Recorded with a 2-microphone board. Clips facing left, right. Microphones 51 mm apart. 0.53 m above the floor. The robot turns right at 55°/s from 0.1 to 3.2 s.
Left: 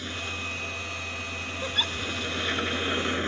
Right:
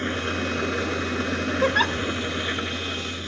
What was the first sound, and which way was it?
An engine running, 140° right.